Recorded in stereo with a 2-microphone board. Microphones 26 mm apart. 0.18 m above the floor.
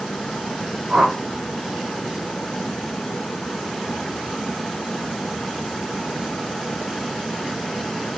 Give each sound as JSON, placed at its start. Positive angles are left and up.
{"t": 0.9, "sound": "a whoosh", "side_deg": -35, "distance_m": 8.5}